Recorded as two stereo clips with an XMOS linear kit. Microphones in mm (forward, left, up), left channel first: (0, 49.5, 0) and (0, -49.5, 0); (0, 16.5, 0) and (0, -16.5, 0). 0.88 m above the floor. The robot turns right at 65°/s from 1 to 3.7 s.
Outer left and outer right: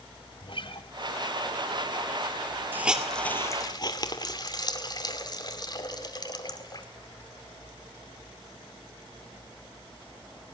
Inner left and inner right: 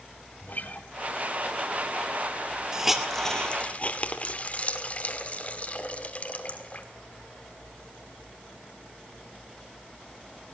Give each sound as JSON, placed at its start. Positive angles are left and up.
{"t": 0.4, "sound": "a guitar", "side_deg": 55, "distance_m": 1.5}
{"t": 2.7, "sound": "a hiss", "side_deg": -20, "distance_m": 2.5}